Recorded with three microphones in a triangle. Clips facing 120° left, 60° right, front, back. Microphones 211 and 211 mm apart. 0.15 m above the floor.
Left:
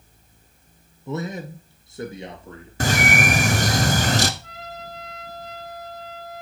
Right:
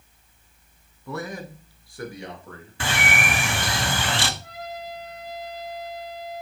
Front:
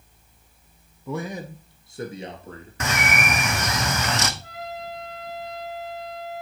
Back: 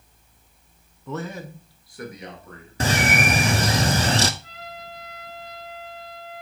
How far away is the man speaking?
About 1.4 m.